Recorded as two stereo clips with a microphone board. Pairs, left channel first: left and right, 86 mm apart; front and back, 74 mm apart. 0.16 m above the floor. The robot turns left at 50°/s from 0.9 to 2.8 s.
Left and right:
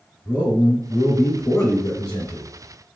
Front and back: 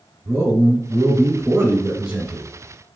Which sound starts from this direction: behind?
A man speaking, at 0.2 s.